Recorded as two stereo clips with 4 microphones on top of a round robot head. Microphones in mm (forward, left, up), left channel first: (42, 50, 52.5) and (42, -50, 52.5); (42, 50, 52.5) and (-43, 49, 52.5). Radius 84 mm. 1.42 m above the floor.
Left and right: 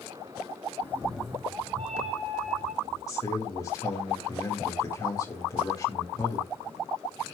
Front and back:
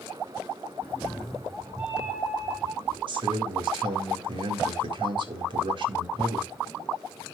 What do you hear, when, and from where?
0.8 s a cat meowing: 55° left, 0.9 m; by 3.0 s 110° right, 1.9 m
3.1 s a man speaking: 155° left, 2.0 m